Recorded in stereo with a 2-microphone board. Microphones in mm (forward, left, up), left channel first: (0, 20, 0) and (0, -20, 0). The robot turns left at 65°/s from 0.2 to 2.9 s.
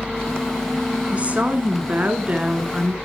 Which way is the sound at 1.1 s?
50° right.